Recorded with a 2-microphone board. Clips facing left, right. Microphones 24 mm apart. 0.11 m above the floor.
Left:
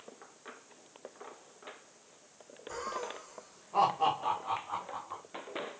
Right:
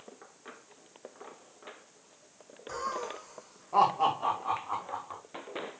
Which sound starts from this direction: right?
Laughter, at 2.7 s.